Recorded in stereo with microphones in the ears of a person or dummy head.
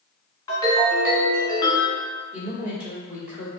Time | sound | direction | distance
0.5 | a ringtone | 20° left (ahead or behind) | 1.6 m
2.3 | a woman speaking | 5° right (ahead or behind) | 1.5 m